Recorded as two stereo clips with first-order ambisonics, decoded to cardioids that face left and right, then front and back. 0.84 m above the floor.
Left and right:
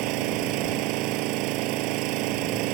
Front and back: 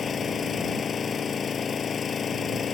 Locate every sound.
0.0 s an engine running: 65° right